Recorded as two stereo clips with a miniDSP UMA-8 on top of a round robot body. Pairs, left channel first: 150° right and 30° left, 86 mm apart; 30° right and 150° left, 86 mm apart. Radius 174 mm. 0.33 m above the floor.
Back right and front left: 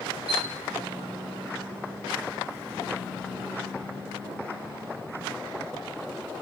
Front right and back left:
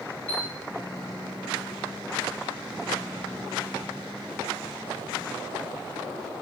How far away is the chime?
About 2.0 m.